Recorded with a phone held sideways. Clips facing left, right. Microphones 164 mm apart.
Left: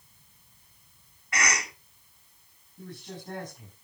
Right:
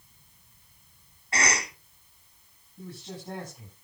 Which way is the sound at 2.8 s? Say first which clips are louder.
Right 1 dB; 10° right (ahead or behind).